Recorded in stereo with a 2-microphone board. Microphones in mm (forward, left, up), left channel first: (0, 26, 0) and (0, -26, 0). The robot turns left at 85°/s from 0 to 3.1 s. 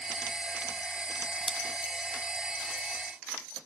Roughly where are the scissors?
Centre.